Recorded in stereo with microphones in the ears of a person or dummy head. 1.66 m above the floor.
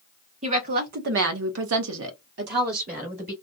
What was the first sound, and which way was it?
A woman speaking, 35° right (ahead or behind).